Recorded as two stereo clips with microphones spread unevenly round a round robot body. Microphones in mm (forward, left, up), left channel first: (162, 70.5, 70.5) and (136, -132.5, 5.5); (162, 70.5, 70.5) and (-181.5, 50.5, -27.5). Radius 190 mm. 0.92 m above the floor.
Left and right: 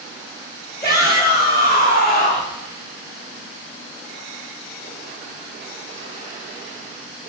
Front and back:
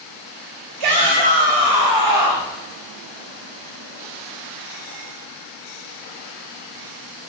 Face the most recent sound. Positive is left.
turn(degrees=160)